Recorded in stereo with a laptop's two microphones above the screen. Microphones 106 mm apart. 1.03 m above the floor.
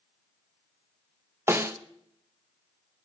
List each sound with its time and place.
1.5 s a snare drum: 25° right (ahead or behind), 1.0 m